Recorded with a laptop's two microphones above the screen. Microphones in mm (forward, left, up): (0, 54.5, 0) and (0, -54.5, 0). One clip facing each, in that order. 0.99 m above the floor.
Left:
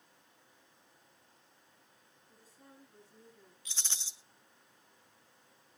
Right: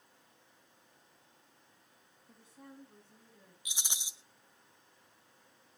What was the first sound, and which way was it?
A woman speaking, 65° right (ahead or behind).